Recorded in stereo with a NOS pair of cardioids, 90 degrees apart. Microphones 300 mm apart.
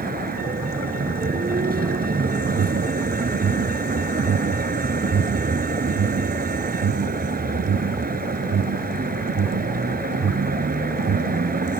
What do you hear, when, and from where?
0.0 s a vehicle: 30° right
2.5 s an alarm: 55° right